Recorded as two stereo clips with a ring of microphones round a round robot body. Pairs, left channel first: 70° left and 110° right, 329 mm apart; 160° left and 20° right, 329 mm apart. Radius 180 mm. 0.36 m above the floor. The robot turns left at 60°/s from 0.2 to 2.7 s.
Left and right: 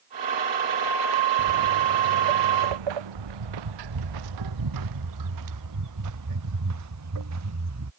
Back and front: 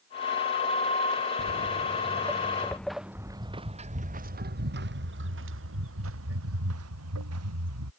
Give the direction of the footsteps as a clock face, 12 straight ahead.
3 o'clock.